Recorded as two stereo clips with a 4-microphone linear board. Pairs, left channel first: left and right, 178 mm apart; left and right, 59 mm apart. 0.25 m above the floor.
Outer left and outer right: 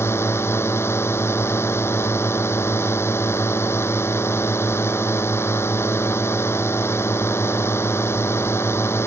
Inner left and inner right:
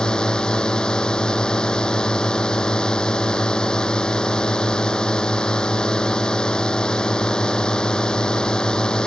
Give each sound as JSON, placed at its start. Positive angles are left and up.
{"t": 0.0, "sound": "a drone", "side_deg": 15}